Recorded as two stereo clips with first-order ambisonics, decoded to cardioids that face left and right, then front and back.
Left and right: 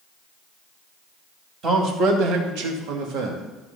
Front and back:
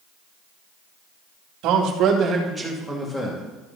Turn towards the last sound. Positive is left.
turn(degrees=-65)